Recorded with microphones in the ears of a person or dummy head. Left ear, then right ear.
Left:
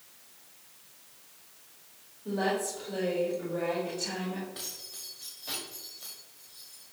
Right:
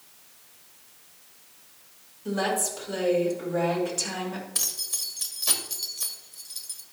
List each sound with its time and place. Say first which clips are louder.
2.2 s a woman speaking: right 3 dB; 70° right (ahead or behind), 4 m
4.5 s keys jangling: right 11 dB; 65° right (ahead or behind), 1.6 m